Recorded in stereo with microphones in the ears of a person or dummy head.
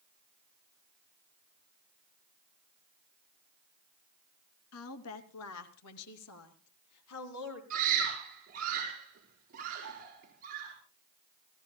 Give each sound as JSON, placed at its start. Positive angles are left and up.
{"t": 4.7, "sound": "a woman speaking", "side_deg": 80, "distance_m": 2.5}
{"t": 7.7, "sound": "a scream", "side_deg": -45, "distance_m": 5.0}